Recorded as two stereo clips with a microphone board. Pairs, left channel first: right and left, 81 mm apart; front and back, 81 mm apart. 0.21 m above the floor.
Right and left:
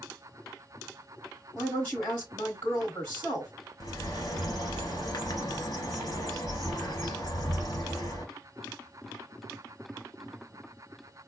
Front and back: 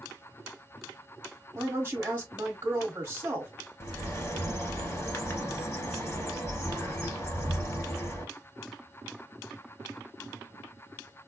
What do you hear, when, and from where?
1.6 s a woman speaking: 150° right, 1.4 m
3.8 s a bird: 50° right, 1.5 m